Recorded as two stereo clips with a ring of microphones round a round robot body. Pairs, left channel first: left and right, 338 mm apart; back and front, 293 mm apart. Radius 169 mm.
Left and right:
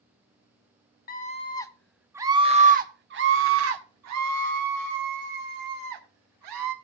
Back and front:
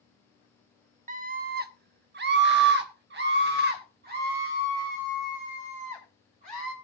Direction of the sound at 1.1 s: 45° left.